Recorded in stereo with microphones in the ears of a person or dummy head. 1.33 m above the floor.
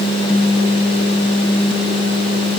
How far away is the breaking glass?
I don't hear breaking glass.